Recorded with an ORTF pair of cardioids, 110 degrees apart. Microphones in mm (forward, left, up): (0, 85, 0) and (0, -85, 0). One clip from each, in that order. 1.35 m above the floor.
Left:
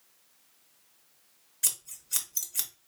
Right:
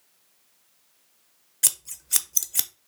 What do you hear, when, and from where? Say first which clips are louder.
1.6 s scissors: right 6 dB; 35° right, 0.5 m